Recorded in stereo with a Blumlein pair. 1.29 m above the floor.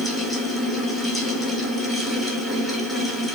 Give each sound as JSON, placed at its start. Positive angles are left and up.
{"t": 0.0, "sound": "a fan", "azimuth_deg": 10, "distance_m": 1.2}